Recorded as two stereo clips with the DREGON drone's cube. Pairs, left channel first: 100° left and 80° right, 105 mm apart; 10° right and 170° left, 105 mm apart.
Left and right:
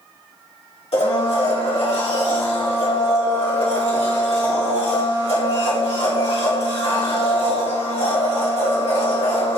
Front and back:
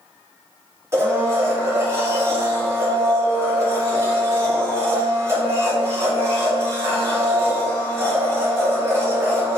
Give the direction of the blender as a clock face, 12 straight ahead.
8 o'clock.